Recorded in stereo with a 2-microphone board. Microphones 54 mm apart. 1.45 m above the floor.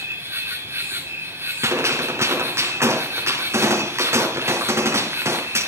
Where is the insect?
45° right (ahead or behind), 3 m.